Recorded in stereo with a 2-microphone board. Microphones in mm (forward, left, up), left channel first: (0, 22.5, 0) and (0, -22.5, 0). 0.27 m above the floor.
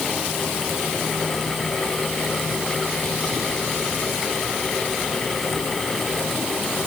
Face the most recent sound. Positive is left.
No sound to turn to.